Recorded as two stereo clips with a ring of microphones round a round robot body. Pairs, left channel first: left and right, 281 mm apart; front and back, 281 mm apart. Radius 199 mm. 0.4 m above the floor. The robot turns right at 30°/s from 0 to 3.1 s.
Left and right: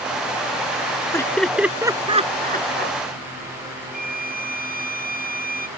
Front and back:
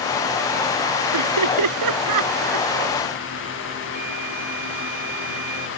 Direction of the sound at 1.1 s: 170° left.